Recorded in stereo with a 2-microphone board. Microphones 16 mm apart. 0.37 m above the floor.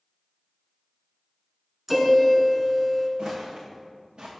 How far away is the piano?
About 0.9 m.